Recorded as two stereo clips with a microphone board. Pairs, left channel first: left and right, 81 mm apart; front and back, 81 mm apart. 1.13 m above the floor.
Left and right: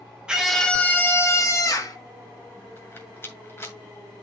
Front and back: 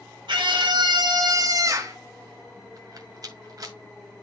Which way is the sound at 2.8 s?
145° left.